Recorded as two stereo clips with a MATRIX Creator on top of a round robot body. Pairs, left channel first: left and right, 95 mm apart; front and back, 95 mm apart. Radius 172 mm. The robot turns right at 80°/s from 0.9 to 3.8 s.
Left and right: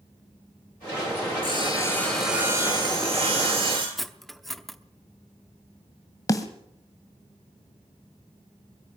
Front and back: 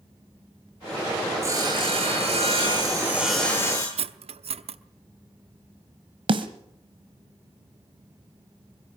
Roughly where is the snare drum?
Behind left.